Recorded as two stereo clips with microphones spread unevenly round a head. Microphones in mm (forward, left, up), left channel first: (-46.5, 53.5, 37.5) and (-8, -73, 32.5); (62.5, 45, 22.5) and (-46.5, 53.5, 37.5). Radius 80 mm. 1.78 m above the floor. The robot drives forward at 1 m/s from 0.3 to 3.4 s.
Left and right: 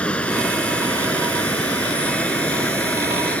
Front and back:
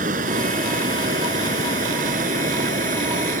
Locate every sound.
0.0 s running water: 170° right